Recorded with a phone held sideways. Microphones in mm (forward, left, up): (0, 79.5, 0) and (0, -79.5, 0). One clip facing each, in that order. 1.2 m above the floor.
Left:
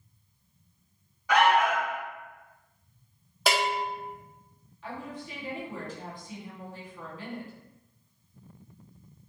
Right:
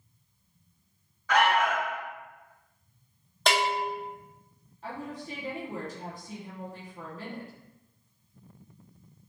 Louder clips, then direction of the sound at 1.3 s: Left 2 dB; 15° left (ahead or behind).